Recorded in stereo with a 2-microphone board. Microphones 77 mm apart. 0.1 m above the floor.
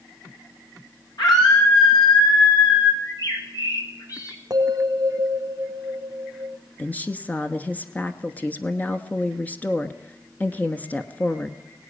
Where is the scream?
65° left (ahead or behind), 8.5 m; by 2.9 s 70° left (ahead or behind), 11 m.